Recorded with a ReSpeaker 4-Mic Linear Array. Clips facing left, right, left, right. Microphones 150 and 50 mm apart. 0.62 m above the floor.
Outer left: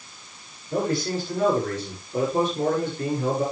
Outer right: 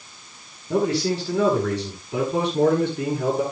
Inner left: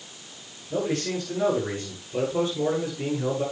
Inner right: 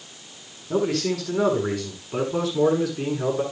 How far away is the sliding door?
I don't hear a sliding door.